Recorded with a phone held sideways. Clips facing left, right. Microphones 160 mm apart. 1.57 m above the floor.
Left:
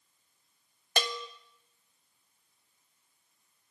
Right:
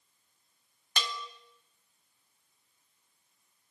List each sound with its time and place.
1.0 s a bell: 50° left (ahead or behind), 0.7 m